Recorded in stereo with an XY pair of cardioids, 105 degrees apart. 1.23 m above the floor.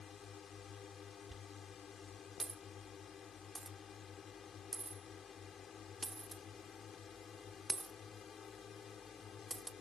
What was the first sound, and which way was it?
A drone, 50° left.